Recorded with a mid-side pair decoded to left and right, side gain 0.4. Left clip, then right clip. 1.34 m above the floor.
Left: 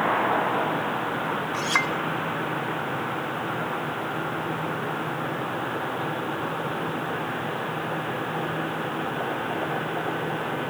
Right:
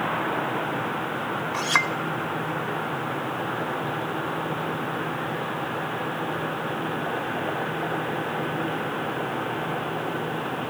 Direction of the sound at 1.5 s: 20° right.